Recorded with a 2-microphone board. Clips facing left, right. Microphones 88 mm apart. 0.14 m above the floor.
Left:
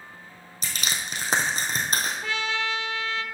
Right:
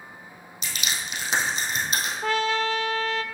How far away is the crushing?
About 2 m.